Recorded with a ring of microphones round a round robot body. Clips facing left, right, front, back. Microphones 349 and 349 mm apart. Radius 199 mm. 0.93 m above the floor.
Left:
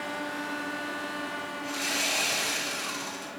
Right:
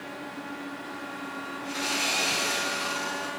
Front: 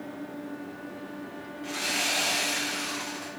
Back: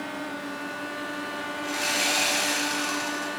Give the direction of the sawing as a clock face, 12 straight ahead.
8 o'clock.